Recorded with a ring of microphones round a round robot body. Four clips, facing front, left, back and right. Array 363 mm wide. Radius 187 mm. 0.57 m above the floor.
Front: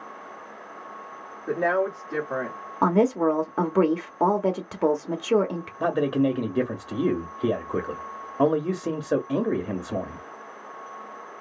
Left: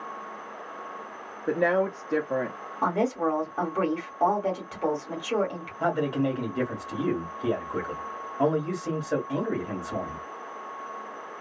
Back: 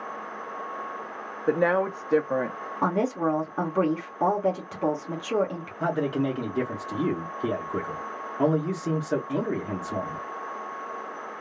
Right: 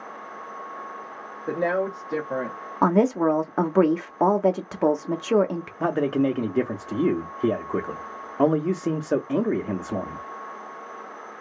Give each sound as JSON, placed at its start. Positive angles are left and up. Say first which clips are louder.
{"t": 1.5, "sound": "a woman speaking", "louder": "even, back 1 dB", "azimuth_deg": 165, "distance_m": 1.0}
{"t": 2.8, "sound": "a woman speaking", "louder": "right 6 dB, front 5 dB", "azimuth_deg": -65, "distance_m": 0.9}
{"t": 5.8, "sound": "a man speaking", "louder": "right 3 dB, front 3 dB", "azimuth_deg": -60, "distance_m": 1.1}